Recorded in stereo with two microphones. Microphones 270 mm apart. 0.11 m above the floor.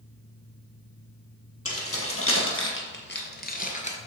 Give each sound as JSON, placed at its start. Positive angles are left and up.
{"t": 1.6, "sound": "keys jangling", "side_deg": 55, "distance_m": 2.0}